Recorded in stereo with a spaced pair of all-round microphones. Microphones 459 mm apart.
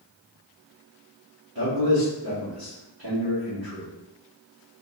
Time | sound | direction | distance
1.6 | a man speaking | 55° right (ahead or behind) | 2 m